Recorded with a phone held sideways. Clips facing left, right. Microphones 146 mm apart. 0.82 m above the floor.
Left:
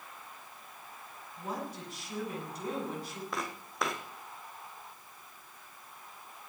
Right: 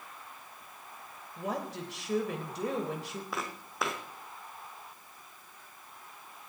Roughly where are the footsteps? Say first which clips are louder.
Left 1 dB; centre.